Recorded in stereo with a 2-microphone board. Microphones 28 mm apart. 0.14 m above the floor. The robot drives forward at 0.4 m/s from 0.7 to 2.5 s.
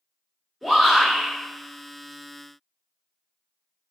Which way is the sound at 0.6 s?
Centre (ahead or behind).